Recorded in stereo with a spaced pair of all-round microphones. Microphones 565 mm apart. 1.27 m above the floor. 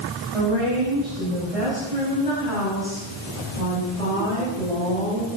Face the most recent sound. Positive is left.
turn(degrees=-80)